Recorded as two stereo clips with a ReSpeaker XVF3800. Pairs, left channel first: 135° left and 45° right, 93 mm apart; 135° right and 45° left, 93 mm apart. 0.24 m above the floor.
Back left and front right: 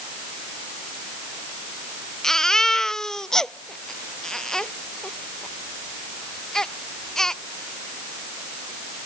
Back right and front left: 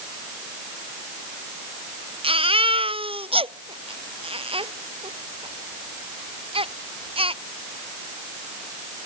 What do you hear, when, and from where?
2.2 s a baby crying: 50° left